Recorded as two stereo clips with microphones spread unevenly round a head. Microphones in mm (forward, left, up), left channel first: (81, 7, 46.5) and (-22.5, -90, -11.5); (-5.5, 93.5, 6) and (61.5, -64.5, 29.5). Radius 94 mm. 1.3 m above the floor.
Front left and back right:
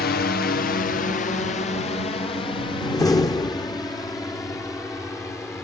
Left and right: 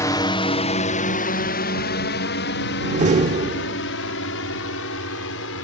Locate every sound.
0.0 s a drone: 60° left; by 5.7 s 125° left
2.8 s a door slam: 20° right